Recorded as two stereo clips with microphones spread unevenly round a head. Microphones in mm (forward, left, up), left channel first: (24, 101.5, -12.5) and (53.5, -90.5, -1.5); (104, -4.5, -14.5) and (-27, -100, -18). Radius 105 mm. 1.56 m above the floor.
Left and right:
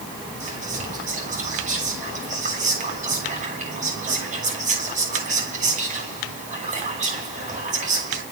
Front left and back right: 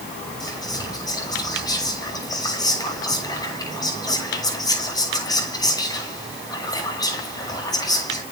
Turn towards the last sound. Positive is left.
turn(degrees=-30)